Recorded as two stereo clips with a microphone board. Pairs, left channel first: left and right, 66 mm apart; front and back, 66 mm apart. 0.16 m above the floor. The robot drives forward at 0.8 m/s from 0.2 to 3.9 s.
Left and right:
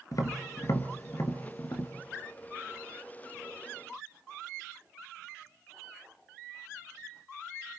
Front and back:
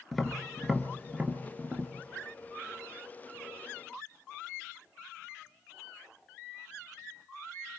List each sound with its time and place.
0.1 s tapping: 90° left, 1.9 m; by 1.9 s 130° left, 2.5 m